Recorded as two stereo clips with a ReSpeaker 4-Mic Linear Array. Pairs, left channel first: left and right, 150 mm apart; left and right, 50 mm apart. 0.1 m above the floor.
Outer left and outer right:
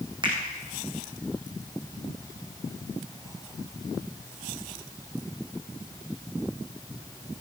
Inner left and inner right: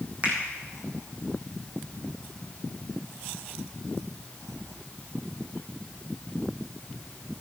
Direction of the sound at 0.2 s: 30° right (ahead or behind).